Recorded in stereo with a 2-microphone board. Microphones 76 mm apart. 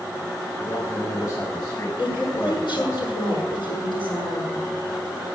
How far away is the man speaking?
About 4.5 m.